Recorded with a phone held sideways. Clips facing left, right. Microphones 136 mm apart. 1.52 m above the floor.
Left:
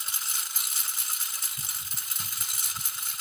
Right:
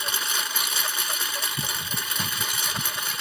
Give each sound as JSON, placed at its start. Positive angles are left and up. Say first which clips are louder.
{"t": 0.0, "sound": "a lawn mower", "louder": "right 12 dB", "side_deg": -75}